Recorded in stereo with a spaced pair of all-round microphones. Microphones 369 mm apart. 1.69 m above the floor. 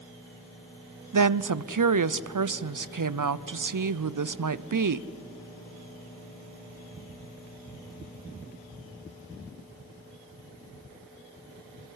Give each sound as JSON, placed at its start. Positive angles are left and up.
{"t": 1.1, "sound": "a woman speaking", "side_deg": -55, "distance_m": 0.6}